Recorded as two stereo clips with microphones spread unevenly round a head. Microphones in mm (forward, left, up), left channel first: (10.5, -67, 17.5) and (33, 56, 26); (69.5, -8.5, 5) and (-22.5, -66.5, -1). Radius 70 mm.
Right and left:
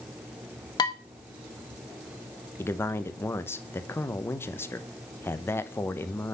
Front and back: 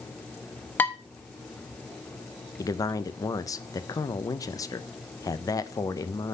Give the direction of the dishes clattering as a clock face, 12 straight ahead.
1 o'clock.